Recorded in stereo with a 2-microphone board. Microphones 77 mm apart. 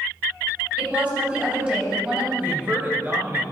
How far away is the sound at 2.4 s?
About 1.6 m.